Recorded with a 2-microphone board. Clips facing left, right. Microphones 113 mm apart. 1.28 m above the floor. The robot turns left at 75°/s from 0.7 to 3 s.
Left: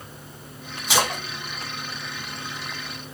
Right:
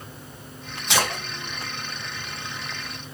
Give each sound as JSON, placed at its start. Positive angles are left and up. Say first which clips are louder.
{"t": 0.9, "sound": "a splash", "louder": "left 1 dB", "side_deg": 5, "distance_m": 1.6}